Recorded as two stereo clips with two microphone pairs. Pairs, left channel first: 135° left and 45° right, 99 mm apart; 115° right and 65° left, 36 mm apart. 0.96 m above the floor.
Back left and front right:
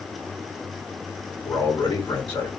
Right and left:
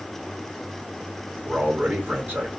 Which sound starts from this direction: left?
A man speaking, at 1.4 s.